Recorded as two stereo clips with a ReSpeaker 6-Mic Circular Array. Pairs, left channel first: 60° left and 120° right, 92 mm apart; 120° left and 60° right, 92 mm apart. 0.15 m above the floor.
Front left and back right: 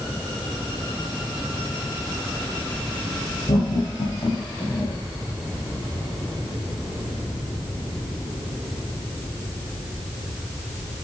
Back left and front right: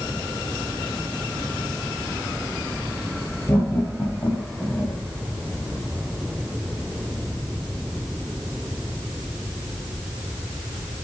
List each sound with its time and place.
3.5 s laughter: 60° left, 3.5 m; by 5.0 s 75° left, 5 m